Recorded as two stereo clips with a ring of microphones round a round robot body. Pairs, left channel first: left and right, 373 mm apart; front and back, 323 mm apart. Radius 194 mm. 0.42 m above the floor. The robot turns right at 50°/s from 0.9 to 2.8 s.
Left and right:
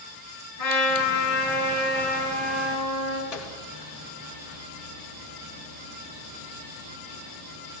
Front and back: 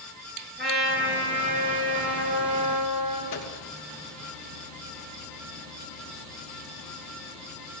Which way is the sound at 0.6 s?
120° left.